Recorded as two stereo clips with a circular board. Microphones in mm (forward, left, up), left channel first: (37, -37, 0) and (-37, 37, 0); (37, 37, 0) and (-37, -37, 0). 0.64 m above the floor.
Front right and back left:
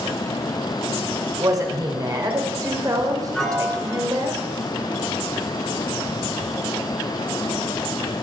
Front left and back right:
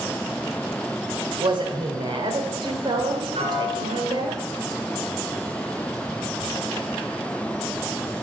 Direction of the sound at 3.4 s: 130° right.